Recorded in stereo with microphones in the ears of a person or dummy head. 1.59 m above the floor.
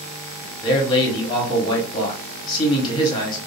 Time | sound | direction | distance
0.6 | a man speaking | 20° left (ahead or behind) | 1.3 m